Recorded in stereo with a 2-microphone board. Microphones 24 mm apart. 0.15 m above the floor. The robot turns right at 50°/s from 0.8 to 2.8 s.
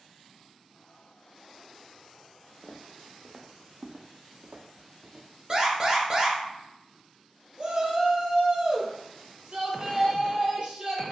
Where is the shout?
40° right (ahead or behind), 1.8 m.